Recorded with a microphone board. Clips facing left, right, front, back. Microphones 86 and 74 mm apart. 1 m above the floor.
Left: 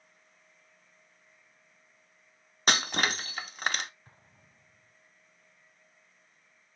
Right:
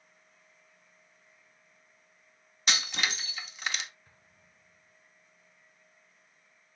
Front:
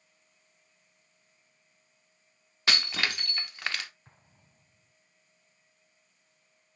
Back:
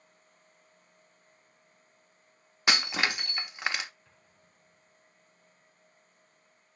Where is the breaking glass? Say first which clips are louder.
Left 4 dB, back 2 dB; 115° left, 0.7 m.